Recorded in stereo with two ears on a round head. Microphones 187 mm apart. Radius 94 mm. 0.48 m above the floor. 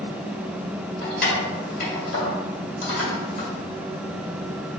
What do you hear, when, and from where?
1.0 s keys jangling: 50° left (ahead or behind), 1.8 m